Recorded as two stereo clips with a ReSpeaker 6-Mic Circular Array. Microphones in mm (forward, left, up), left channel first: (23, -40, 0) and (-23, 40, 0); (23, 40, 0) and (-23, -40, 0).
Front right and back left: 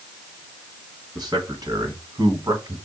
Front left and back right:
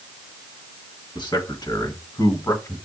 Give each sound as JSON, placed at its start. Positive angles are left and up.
{"t": 1.1, "sound": "a man speaking", "azimuth_deg": 80, "distance_m": 2.5}